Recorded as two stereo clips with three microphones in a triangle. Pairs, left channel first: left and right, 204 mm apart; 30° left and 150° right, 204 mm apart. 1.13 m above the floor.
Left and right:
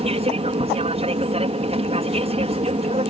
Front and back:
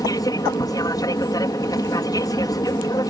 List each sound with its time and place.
0.0 s an aircraft: 40° right